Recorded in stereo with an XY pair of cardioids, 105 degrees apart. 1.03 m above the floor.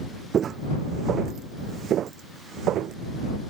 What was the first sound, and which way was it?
Footsteps, 55° right.